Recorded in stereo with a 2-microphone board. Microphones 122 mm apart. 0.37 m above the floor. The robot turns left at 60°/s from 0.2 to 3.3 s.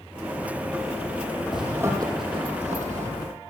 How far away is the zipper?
About 3.5 m.